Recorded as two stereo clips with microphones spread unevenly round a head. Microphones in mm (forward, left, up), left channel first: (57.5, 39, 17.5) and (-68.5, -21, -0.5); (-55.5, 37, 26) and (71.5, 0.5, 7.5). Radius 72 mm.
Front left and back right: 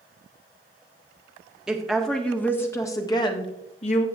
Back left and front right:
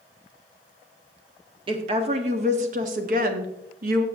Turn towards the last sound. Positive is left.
turn(degrees=-20)